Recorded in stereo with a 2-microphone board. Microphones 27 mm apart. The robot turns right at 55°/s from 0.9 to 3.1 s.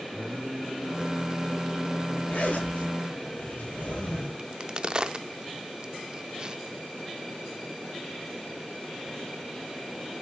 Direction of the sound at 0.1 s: 85° right.